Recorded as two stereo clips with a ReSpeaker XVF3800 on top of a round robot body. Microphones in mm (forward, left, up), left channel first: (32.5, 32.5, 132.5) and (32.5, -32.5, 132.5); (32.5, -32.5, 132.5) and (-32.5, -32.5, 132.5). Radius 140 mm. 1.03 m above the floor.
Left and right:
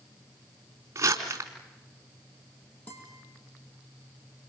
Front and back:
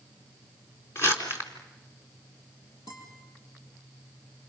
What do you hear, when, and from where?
0.9 s crumpling: 45° right, 3.5 m
2.9 s a guitar: 25° left, 7.5 m